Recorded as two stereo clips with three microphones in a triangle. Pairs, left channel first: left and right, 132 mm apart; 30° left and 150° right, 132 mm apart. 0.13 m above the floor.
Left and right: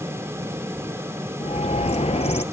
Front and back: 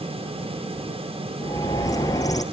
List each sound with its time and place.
1.4 s a bird: 85° left, 2 m